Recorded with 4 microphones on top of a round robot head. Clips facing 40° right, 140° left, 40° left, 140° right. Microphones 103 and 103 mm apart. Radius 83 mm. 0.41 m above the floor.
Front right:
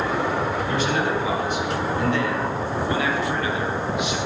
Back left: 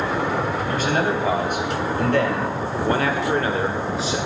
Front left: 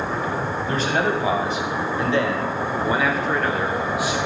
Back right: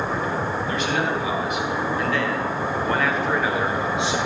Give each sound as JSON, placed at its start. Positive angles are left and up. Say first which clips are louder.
{"t": 0.7, "sound": "a man speaking", "louder": "back left 3 dB, front left 4 dB", "azimuth_deg": 95, "distance_m": 4.0}